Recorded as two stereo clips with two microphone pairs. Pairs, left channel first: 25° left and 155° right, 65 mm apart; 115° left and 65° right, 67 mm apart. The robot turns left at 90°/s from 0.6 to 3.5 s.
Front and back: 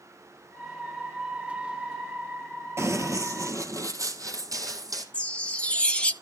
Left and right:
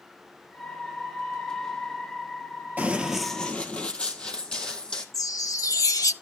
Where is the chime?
95° left, 0.9 m.